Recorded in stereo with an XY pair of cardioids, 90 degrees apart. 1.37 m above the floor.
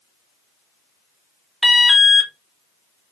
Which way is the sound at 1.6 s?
10° left.